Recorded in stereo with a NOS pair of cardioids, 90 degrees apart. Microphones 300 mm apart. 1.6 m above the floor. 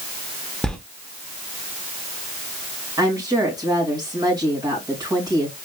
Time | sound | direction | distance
0.6 | a sliding door | straight ahead | 1.1 m
3.0 | a woman speaking | 10° right | 2.5 m